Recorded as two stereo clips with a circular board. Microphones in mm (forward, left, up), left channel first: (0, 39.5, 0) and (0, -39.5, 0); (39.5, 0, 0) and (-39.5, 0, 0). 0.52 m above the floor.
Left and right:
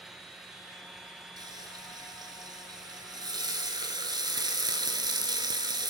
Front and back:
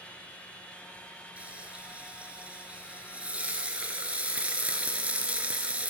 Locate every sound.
1.4 s frying: 110° right, 1.4 m